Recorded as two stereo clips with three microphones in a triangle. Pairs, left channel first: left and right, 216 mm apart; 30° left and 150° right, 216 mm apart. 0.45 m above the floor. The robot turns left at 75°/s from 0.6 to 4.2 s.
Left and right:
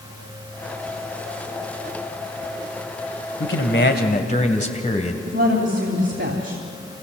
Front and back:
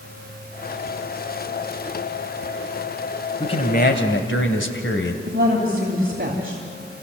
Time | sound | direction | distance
3.4 | a man speaking | 95° left | 2 m
5.3 | a woman speaking | 110° right | 3 m